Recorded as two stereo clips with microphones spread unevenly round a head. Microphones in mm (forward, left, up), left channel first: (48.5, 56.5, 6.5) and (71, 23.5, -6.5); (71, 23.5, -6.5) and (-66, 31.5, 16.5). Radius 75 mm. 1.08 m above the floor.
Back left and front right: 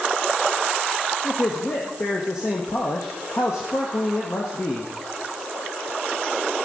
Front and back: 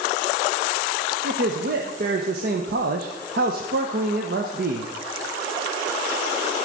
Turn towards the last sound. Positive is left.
turn(degrees=180)